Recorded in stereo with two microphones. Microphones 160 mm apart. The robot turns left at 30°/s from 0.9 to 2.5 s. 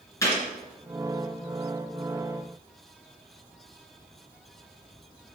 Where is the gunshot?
20° left (ahead or behind), 2.5 m.